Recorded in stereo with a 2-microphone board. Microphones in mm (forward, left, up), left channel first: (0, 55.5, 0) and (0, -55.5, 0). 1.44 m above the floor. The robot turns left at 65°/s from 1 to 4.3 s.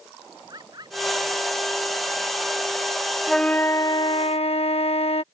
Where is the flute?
Straight behind; by 5.2 s 115° left.